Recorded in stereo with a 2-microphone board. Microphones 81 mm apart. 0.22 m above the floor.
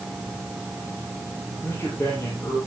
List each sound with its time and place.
1.6 s a man speaking: 35° left (ahead or behind), 5 m